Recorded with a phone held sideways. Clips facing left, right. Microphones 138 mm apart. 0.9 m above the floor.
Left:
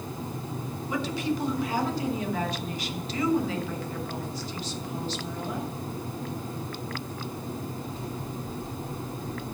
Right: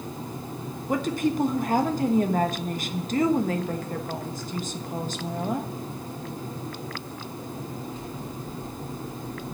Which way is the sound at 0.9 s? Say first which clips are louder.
Right 4 dB; 50° right (ahead or behind).